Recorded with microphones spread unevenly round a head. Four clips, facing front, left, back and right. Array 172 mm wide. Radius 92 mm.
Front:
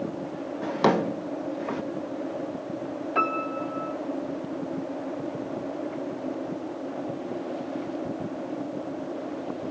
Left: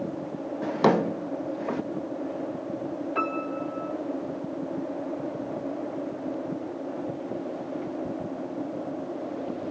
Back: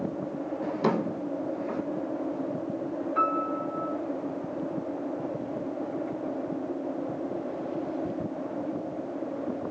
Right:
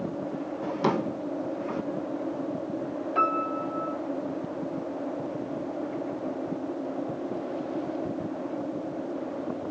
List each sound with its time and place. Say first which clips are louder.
0.6 s a drawer: left 5 dB, front 5 dB; 50° left, 0.8 m
3.1 s a piano: right 5 dB, front 1 dB; 10° right, 4 m